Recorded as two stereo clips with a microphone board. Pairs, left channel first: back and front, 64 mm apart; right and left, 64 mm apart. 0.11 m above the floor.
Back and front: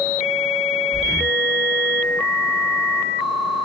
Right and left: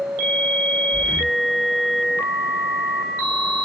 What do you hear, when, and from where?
0.9 s breathing: 85° left, 1.6 m